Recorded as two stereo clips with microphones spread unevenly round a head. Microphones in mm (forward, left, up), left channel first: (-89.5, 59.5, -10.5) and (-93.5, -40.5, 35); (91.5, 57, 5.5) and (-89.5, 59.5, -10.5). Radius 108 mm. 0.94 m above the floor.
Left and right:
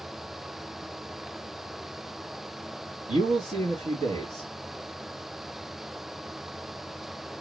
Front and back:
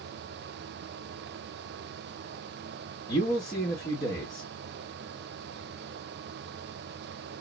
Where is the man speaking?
65° right, 1.2 m.